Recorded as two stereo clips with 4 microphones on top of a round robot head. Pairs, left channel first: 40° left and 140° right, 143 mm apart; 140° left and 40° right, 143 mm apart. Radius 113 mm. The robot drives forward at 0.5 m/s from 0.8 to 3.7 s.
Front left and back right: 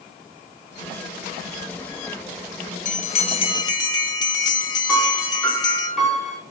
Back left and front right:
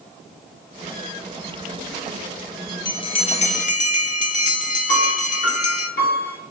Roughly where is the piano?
Behind left.